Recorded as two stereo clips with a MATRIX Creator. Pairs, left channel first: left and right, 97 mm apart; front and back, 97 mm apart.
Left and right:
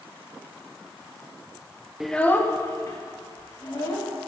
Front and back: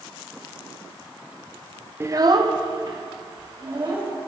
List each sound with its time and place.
2.0 s a child speaking: 165° right, 0.6 m; by 4.1 s 140° left, 3 m